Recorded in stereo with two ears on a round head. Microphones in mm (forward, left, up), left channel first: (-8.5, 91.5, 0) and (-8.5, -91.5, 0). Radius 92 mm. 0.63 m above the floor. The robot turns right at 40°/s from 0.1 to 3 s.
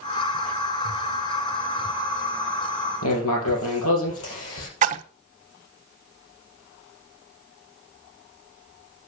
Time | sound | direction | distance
3.0 | writing | 80° left | 4 m
4.8 | a splash | 40° right (ahead or behind) | 0.8 m